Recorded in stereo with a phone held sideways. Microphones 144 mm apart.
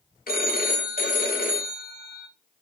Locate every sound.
0.3 s a phone ringing: 85° left, 0.7 m